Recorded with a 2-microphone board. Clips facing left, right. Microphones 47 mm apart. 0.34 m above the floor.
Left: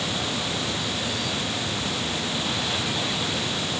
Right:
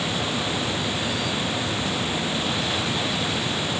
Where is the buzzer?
I don't hear a buzzer.